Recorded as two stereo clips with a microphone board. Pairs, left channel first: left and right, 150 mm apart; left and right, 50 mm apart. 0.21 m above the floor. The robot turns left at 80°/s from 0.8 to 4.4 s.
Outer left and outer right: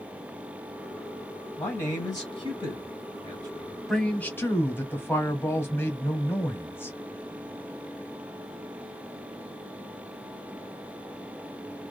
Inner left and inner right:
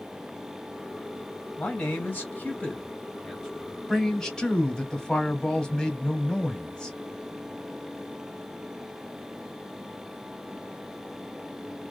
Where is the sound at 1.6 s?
10° left (ahead or behind), 1.1 m; by 3.8 s 10° right (ahead or behind), 1.1 m.